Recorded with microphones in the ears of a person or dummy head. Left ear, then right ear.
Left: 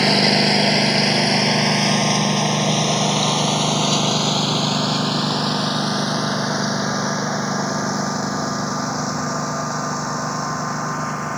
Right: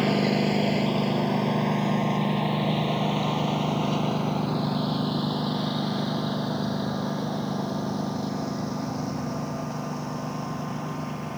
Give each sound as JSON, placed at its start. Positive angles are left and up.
{"t": 0.0, "sound": "a lawn mower", "side_deg": 55}